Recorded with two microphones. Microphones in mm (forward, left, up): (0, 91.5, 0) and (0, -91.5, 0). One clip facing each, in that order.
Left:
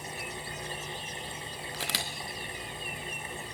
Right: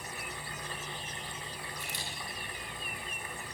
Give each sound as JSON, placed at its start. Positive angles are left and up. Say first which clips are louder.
{"t": 1.7, "sound": "a camera shutter", "louder": "left 5 dB", "side_deg": 85, "distance_m": 2.5}